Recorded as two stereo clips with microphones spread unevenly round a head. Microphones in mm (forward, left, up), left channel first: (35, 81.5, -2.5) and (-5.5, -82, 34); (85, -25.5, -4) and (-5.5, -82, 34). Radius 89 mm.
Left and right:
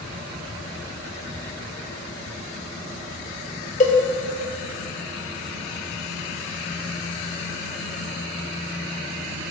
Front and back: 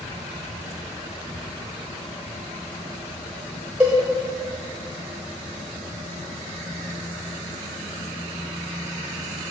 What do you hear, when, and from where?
3.8 s a cowbell: 130° left, 0.9 m